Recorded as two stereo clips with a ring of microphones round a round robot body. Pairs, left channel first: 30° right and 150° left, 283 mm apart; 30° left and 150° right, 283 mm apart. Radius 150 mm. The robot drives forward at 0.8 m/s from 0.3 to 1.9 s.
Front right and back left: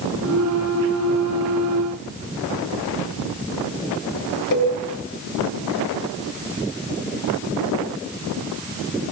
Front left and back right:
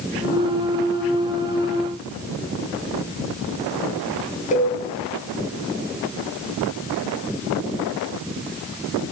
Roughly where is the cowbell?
Ahead right.